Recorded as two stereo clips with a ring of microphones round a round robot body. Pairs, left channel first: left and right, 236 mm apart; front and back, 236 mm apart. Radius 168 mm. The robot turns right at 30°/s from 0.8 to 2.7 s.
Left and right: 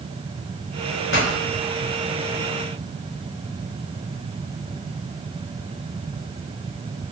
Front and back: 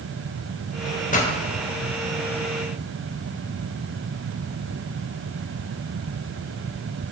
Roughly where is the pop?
Ahead left.